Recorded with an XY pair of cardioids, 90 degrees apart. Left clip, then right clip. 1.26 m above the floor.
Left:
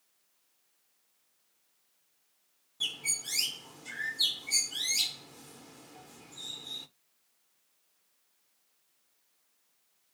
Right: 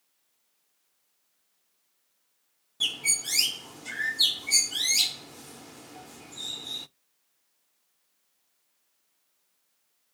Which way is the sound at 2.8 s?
50° right.